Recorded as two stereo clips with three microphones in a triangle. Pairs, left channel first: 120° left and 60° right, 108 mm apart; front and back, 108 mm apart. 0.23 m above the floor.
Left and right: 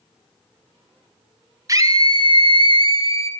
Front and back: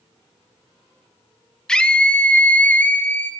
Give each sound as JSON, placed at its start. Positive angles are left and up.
{"t": 1.7, "sound": "a scream", "azimuth_deg": -75, "distance_m": 1.1}